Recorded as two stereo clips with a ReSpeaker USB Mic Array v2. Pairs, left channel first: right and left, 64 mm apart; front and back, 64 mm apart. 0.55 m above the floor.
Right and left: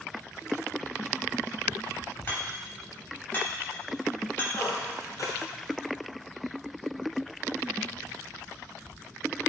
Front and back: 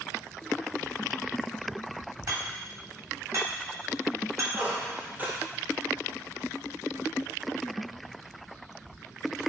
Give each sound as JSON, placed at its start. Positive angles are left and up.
{"t": 2.3, "sound": "hammering", "azimuth_deg": -140, "distance_m": 3.5}
{"t": 4.5, "sound": "a squeak", "azimuth_deg": -115, "distance_m": 2.0}